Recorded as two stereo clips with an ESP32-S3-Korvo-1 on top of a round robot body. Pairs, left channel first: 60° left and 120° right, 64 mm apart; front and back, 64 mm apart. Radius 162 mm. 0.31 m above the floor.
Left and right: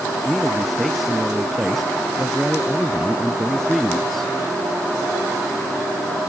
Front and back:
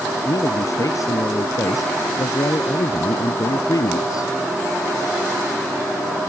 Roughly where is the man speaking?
Ahead right.